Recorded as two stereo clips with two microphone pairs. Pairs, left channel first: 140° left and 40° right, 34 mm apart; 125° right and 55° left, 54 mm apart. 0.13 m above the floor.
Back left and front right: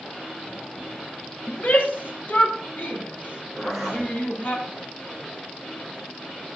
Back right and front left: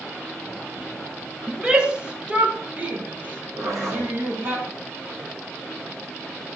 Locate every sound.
1.5 s a shout: 125° left, 3.5 m; by 4.6 s 100° left, 4.5 m
3.6 s a zipper: 50° left, 7 m